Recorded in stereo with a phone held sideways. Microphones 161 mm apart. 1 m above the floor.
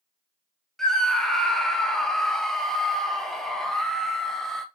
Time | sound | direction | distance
0.8 | a scream | 5° left (ahead or behind) | 0.6 m